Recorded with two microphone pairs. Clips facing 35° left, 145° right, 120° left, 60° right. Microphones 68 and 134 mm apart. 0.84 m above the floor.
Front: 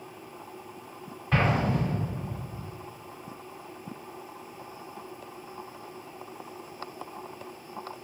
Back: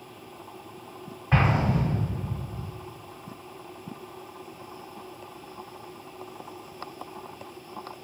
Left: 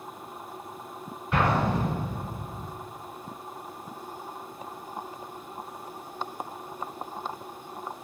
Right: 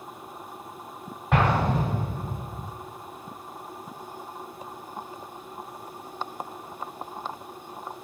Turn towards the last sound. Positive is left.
turn(degrees=-75)